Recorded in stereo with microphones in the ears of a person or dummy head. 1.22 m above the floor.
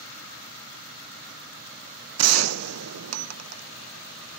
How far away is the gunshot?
About 0.8 m.